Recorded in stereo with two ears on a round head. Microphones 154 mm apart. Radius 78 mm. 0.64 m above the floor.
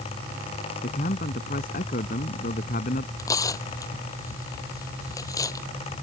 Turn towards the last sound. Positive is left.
turn(degrees=20)  # may be behind; listen again after turning